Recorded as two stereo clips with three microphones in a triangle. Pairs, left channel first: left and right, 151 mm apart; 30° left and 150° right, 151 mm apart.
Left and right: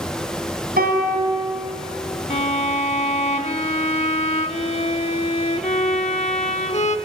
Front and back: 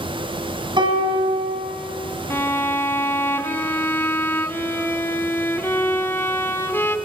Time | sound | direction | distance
0.8 | a piano | 95° right | 4.5 m
2.3 | a violin | 95° left | 1.2 m